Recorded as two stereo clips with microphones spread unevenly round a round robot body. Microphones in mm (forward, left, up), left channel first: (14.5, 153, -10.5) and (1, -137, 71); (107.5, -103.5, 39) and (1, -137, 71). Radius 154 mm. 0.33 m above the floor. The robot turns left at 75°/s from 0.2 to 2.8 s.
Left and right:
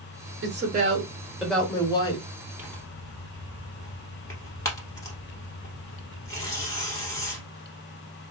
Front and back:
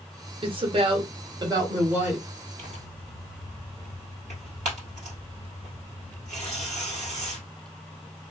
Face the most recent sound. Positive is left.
turn(degrees=170)